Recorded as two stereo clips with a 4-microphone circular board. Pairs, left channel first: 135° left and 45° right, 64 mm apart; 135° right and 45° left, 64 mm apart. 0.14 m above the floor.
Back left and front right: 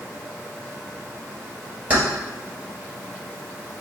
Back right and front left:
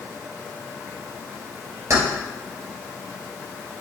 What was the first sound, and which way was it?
Keys jangling, 15° left.